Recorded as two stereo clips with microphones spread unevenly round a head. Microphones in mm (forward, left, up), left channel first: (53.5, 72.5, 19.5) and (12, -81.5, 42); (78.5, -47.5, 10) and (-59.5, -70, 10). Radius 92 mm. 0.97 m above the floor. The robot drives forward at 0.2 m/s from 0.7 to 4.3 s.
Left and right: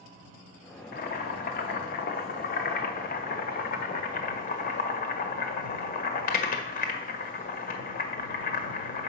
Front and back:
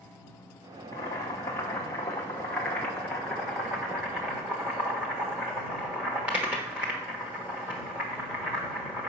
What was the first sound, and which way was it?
Boiling, 75° left.